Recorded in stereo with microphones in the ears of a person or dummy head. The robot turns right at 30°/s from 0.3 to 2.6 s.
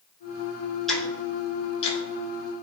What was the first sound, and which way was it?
Ticking, 5° right (ahead or behind).